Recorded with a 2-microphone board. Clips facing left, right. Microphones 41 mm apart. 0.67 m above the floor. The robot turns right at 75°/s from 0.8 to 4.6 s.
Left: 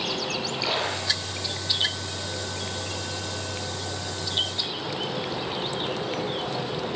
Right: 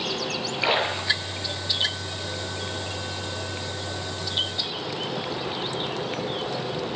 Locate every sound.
0.6 s a splash: 35° right (ahead or behind), 6.5 m; by 1.7 s 30° left (ahead or behind), 6.5 m